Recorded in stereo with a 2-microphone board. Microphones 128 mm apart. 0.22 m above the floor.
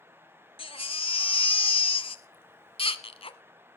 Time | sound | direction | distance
0.6 | a baby crying | 45° left (ahead or behind) | 1.1 m